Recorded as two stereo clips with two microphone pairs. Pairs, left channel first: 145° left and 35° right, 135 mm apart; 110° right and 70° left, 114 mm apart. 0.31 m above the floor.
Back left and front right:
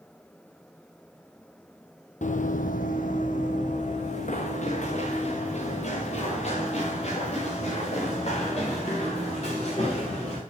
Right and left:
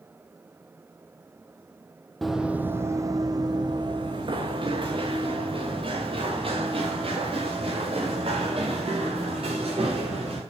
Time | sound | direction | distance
2.2 | running footsteps | 165° left | 0.7 m